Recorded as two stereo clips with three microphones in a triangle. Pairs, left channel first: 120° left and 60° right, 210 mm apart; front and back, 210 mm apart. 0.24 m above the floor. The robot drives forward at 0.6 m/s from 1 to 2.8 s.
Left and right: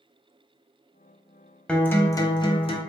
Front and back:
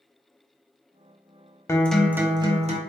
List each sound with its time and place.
1.7 s a guitar: 45° left, 0.7 m; by 2.8 s 160° left, 0.8 m